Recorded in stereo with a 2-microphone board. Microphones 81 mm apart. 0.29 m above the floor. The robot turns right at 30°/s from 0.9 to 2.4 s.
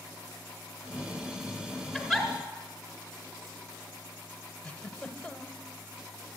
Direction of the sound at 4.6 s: 10° left (ahead or behind).